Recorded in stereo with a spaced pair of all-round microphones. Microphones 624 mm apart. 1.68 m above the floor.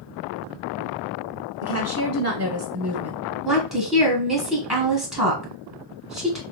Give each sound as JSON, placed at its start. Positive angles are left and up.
{"t": 1.6, "sound": "a woman speaking", "side_deg": -25, "distance_m": 0.7}
{"t": 3.5, "sound": "a woman speaking", "side_deg": 0, "distance_m": 1.2}